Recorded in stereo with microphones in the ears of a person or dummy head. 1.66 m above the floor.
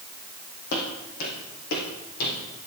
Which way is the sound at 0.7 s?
45° left (ahead or behind).